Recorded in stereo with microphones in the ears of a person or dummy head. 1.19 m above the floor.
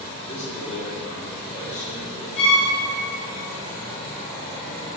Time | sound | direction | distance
0.3 | a man speaking | 40° left (ahead or behind) | 1.4 m
2.4 | a violin | 35° left (ahead or behind) | 1.4 m